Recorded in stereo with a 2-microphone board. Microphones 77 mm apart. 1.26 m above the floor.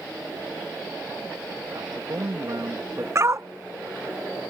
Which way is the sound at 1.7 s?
60° right (ahead or behind).